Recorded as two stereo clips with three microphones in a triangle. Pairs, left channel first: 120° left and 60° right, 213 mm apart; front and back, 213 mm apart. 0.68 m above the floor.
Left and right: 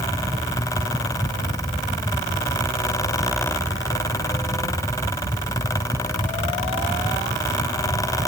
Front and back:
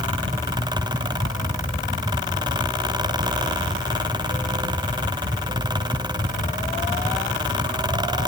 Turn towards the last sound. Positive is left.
No sound to turn to.